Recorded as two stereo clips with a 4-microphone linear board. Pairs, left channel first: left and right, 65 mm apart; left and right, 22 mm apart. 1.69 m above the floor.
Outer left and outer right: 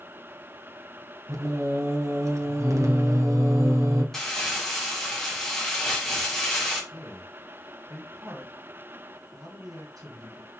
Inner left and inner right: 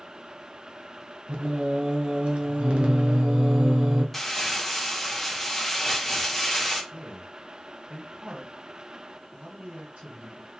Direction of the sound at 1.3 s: 50° right (ahead or behind).